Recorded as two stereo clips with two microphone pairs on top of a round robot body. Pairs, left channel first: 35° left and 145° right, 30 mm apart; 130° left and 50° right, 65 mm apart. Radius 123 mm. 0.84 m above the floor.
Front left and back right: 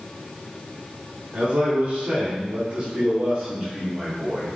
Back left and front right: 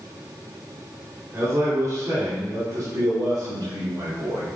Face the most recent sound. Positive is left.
turn(degrees=-70)